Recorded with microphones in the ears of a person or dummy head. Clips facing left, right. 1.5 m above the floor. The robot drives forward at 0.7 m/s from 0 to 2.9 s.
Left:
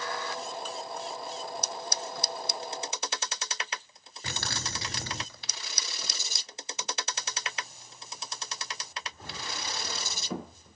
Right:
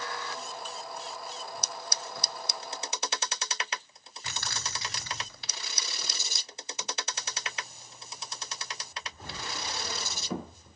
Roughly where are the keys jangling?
Left.